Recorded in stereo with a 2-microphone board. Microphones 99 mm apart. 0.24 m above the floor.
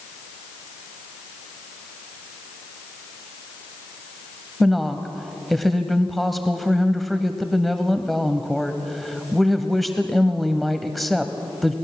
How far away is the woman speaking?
About 1.0 m.